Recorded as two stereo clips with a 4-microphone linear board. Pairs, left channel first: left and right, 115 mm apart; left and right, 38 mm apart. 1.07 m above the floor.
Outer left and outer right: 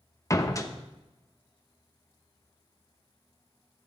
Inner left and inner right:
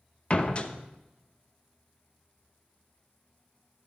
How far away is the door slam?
About 0.9 m.